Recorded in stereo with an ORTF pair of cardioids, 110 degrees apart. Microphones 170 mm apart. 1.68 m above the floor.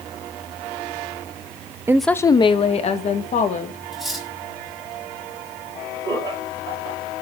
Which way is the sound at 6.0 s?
30° right.